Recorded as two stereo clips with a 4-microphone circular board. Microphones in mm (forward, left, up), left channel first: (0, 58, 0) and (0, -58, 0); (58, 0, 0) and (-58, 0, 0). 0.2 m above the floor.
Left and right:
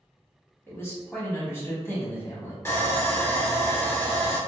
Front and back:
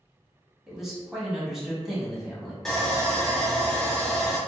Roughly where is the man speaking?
Left.